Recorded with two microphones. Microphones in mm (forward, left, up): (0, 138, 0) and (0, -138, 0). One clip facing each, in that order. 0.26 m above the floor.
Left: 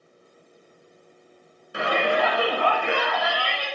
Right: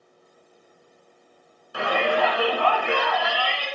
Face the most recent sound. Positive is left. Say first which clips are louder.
# even
turn(degrees=20)  # may be behind; listen again after turning